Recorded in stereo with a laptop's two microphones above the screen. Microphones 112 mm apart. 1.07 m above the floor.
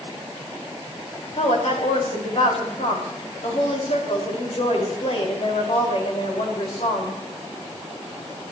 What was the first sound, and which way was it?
A woman speaking, 65° left (ahead or behind).